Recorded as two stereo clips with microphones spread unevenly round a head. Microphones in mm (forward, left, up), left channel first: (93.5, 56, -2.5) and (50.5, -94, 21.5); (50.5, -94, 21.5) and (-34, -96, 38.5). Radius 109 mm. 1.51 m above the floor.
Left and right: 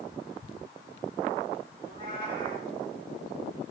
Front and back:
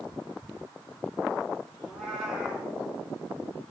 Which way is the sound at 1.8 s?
100° right.